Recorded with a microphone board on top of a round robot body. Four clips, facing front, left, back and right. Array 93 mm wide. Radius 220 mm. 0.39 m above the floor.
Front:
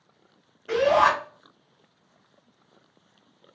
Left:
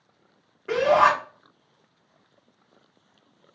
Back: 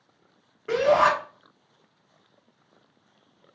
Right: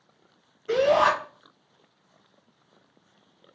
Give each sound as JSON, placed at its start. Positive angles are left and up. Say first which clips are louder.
{"t": 0.7, "sound": "a shout", "louder": "left 2 dB, even", "azimuth_deg": 140, "distance_m": 2.5}